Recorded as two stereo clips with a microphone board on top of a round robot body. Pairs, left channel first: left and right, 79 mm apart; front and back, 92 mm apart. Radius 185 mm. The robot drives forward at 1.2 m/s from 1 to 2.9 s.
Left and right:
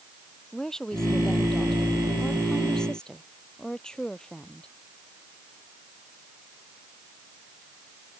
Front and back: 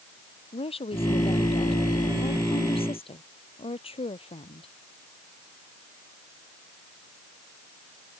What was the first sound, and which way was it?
A woman speaking, 10° left.